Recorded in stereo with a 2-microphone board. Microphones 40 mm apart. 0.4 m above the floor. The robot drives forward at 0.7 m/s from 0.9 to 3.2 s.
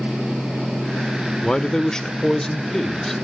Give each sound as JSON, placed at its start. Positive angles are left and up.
{"t": 1.4, "sound": "a man speaking", "side_deg": 20, "distance_m": 0.9}